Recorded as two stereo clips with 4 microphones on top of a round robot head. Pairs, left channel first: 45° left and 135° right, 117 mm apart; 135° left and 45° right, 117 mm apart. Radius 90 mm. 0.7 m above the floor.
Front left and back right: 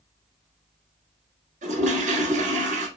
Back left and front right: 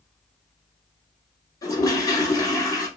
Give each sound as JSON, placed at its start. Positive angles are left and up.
{"t": 1.6, "sound": "a toilet flushing", "azimuth_deg": -160, "distance_m": 1.5}